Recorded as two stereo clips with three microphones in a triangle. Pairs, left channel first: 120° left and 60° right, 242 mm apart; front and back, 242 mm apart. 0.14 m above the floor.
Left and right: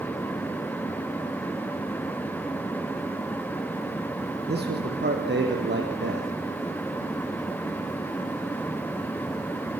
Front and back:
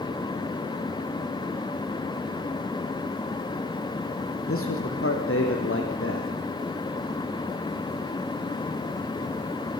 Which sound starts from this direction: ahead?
A man speaking, at 4.5 s.